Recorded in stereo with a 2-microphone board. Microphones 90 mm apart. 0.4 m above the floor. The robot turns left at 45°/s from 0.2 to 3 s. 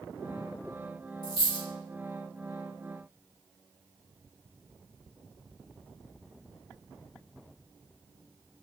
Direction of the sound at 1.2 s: 45° left (ahead or behind).